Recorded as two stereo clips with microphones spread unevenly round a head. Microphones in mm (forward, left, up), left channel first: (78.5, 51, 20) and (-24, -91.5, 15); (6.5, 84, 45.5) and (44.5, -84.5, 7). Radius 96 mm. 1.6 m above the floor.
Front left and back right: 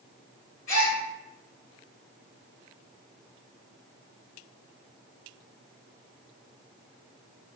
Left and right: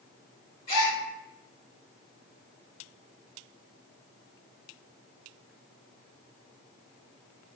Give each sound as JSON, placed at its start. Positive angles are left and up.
{"t": 0.7, "sound": "a gasp", "azimuth_deg": 85, "distance_m": 1.6}